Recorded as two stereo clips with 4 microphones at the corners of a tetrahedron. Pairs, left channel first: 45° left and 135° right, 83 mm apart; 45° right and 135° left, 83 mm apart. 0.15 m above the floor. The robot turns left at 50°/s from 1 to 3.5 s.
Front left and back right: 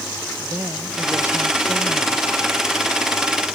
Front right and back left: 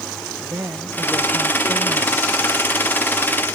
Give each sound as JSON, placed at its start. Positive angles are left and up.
{"t": 0.4, "sound": "a woman speaking", "azimuth_deg": 180}